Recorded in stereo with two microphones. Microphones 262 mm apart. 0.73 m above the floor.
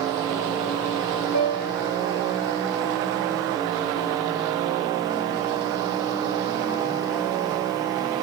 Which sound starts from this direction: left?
A piano, at 1.3 s.